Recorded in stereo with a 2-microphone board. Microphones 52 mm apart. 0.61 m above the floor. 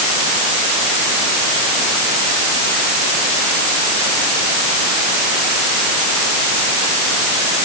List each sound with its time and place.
Only background noise.